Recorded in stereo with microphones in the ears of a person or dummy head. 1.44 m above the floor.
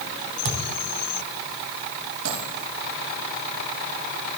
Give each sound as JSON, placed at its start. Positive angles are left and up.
{"t": 0.5, "sound": "a thud", "side_deg": -65, "distance_m": 3.0}
{"t": 2.2, "sound": "a dropped coin", "side_deg": -85, "distance_m": 9.5}